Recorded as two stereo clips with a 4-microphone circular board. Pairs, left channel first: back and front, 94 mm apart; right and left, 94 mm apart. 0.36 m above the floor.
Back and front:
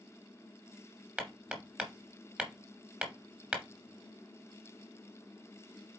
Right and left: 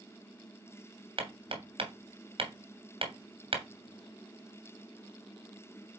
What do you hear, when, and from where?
1.2 s hammering: 75° left, 2.0 m